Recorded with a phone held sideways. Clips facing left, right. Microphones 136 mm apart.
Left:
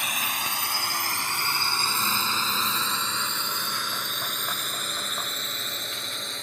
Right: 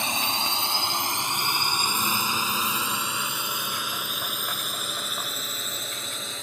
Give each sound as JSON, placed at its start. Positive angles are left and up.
{"t": 0.0, "sound": "a drone", "side_deg": -25}